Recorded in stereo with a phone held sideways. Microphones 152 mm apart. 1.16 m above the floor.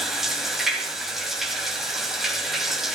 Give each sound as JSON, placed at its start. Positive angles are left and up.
{"t": 0.0, "sound": "running water", "side_deg": 0, "distance_m": 1.9}